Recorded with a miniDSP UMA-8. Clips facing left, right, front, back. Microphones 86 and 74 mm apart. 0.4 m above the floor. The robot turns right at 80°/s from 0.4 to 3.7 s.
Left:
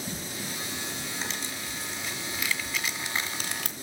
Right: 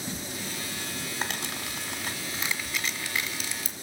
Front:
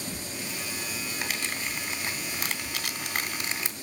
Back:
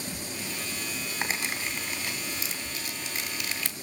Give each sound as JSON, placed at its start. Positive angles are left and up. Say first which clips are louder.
{"t": 1.2, "sound": "crumpling", "louder": "right 2 dB, back 3 dB", "azimuth_deg": -125, "distance_m": 2.0}